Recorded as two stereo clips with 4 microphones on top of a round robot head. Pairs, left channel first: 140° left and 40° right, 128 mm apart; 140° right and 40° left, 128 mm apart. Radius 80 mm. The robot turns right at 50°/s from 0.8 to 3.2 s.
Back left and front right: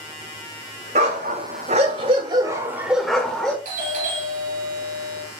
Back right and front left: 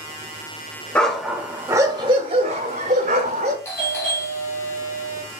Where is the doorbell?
65° right, 3.5 m.